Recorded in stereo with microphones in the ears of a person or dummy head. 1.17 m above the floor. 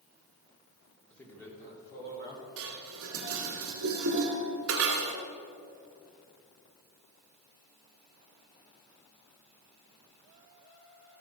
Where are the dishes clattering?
80° right, 1.7 m.